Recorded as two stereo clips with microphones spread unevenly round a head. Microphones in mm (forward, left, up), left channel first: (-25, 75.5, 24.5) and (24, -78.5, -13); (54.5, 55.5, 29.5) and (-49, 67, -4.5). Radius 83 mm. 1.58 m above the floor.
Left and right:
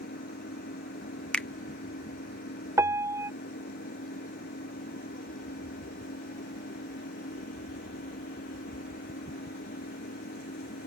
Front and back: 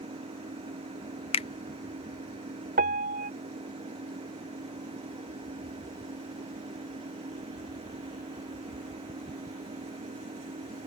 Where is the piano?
150° right.